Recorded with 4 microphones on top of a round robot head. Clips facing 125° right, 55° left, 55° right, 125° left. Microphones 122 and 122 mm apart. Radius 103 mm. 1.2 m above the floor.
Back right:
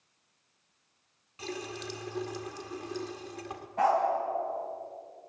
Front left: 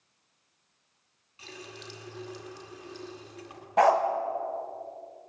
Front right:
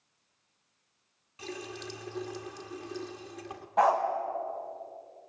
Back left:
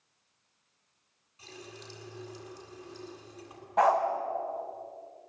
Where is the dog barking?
35° left, 1.7 m.